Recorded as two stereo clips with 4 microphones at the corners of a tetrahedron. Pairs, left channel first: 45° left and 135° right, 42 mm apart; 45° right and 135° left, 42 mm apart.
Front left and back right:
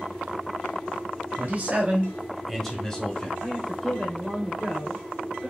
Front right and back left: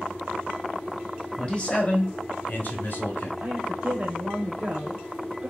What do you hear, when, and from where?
1.4 s a man speaking: 110° right, 1.4 m; by 3.3 s 15° right, 2 m
3.4 s a woman speaking: 135° left, 1.0 m